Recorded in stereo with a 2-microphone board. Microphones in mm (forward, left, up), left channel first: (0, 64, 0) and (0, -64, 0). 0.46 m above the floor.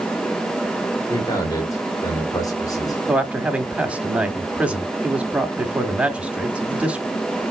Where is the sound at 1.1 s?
30° left (ahead or behind), 1.9 m.